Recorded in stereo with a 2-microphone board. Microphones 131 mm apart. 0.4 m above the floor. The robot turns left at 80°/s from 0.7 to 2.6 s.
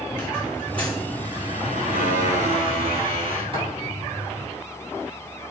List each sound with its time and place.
0.1 s a squeak: 15° left, 5 m; by 4.5 s 135° right, 5 m